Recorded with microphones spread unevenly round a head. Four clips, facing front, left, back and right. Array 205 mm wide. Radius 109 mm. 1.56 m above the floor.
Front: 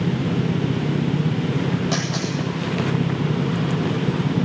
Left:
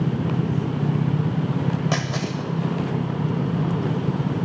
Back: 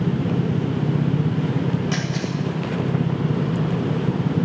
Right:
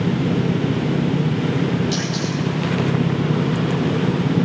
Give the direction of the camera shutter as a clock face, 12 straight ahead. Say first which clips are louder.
Right 3 dB, front 1 dB; 10 o'clock.